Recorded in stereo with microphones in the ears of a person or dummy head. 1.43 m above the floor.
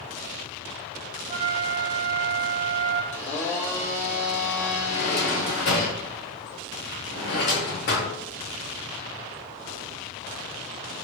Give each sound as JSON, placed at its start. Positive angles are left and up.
{"t": 1.3, "sound": "a flute", "side_deg": -25, "distance_m": 0.7}
{"t": 3.1, "sound": "a blender", "side_deg": 60, "distance_m": 1.5}
{"t": 4.9, "sound": "a drawer", "side_deg": 55, "distance_m": 1.3}